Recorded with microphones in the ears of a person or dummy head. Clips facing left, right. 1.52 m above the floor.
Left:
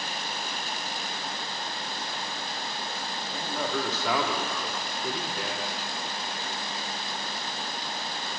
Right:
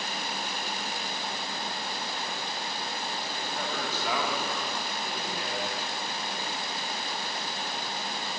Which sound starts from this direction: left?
A man speaking, at 3.3 s.